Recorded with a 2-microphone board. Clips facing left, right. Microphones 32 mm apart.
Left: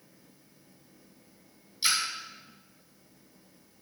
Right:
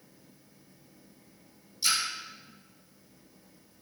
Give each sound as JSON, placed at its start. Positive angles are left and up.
{"t": 1.8, "sound": "a splash", "side_deg": 40, "distance_m": 3.5}